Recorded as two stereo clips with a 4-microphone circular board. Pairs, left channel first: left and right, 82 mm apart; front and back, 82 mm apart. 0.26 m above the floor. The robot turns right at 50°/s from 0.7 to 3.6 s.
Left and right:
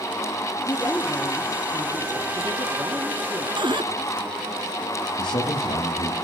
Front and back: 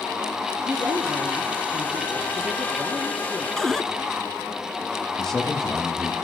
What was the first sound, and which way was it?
A woman speaking, 150° left.